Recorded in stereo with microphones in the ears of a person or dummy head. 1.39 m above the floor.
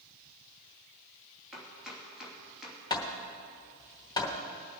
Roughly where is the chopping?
Centre.